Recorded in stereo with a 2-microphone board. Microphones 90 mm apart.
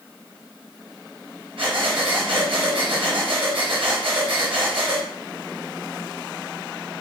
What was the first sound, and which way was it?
Breathing, 80° right.